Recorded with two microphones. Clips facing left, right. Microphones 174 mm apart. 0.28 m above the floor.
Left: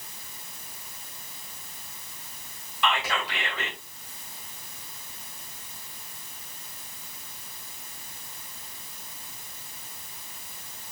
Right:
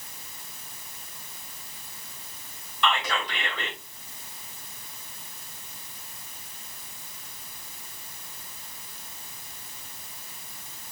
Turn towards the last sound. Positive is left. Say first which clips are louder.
# right 1 dB
turn(degrees=5)  # may be behind; listen again after turning